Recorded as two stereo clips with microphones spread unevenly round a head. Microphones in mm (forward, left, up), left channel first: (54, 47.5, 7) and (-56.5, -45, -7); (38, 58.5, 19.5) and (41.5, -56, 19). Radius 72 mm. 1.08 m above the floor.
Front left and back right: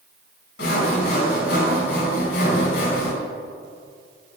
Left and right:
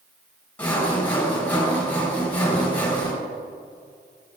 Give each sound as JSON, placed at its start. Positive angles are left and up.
{"t": 0.6, "sound": "sawing", "azimuth_deg": 15, "distance_m": 4.0}